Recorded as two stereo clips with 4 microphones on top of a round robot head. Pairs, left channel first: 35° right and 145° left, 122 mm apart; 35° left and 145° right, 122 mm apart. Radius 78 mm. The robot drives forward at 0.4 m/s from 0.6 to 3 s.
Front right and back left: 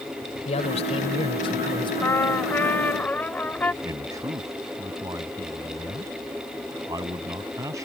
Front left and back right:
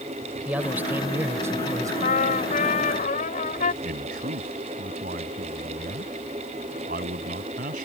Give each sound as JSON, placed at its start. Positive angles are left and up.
{"t": 0.5, "sound": "a man speaking", "azimuth_deg": -65}
{"t": 2.0, "sound": "a trumpet", "azimuth_deg": 35}
{"t": 3.8, "sound": "a man speaking", "azimuth_deg": -150}